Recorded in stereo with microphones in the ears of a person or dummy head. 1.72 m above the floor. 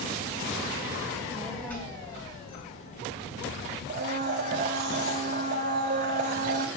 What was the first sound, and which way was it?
A child speaking, 10° right (ahead or behind).